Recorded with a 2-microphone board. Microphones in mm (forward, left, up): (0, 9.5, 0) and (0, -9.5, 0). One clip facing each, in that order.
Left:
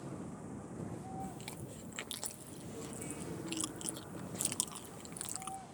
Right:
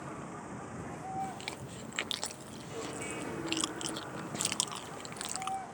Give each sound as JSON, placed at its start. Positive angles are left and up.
{"t": 0.0, "sound": "a vehicle", "side_deg": -50}
{"t": 1.2, "sound": "chewing", "side_deg": -40}